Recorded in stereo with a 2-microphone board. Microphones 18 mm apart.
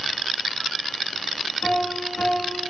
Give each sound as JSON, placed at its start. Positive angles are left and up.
{"t": 1.6, "sound": "a piano", "side_deg": 80, "distance_m": 3.5}